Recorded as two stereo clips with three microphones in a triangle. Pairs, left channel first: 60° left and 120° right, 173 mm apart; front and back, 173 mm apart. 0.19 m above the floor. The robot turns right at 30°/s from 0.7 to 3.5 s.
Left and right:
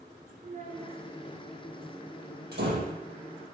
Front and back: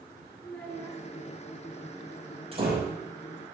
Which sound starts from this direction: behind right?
A door slam, at 2.5 s.